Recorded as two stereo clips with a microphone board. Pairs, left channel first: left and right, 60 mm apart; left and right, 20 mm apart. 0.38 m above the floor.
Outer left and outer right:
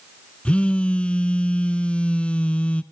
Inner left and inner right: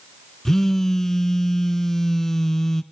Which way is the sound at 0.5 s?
20° left (ahead or behind).